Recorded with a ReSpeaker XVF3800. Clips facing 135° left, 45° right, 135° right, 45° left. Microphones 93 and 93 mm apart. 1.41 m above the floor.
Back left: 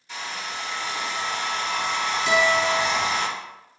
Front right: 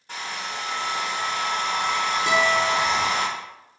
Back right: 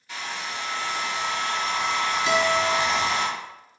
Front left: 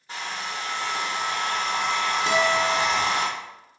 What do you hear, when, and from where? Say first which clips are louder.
0.1 s a hair dryer: front right 1 dB, front left 1 dB; 5° right, 1.1 m
2.3 s a guitar: back left 1 dB, even; 5° right, 1.0 m